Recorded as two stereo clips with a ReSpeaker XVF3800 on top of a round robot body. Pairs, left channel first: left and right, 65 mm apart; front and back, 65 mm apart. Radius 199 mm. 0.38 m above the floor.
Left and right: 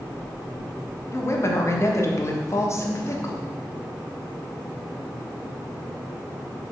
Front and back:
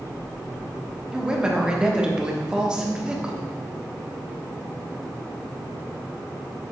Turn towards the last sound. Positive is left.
turn(degrees=110)